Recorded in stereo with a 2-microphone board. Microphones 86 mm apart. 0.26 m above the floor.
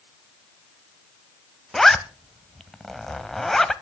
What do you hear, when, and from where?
1.7 s a zipper: 5° left (ahead or behind), 0.6 m